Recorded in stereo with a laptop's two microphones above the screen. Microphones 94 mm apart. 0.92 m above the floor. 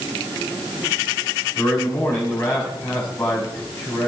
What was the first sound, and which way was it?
A man speaking, 25° left (ahead or behind).